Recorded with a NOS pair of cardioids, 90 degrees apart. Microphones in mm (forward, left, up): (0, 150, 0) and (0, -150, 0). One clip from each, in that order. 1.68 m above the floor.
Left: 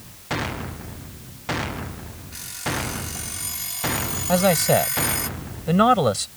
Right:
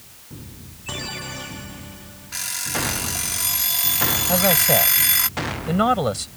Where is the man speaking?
15° left.